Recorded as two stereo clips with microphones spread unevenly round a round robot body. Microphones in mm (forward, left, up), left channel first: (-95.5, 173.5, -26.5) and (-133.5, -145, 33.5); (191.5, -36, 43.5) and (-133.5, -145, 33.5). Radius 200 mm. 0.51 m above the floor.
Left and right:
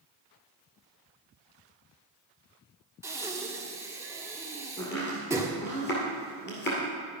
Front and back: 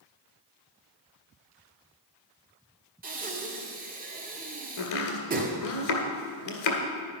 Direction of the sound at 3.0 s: 170° left.